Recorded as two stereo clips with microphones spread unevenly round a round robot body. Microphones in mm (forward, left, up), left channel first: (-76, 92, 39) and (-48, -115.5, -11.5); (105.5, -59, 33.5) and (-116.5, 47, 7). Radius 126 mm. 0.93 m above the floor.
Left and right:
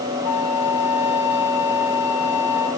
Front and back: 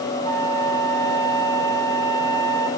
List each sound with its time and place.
0.2 s a flute: 105° left, 1.5 m